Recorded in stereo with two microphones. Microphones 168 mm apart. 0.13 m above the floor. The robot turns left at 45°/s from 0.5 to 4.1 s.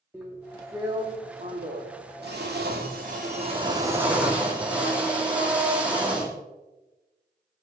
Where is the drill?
10° right, 3 m; by 6.4 s 170° right, 3 m.